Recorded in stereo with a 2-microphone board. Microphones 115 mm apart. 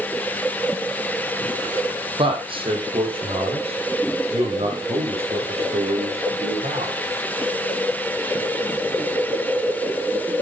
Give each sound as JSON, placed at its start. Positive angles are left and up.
{"t": 2.2, "sound": "a man speaking", "side_deg": -50, "distance_m": 5.0}